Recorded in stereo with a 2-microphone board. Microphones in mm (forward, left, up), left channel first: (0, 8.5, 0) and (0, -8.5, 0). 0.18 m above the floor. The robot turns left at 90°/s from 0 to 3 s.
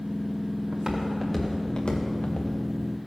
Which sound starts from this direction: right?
Footsteps, at 0.7 s.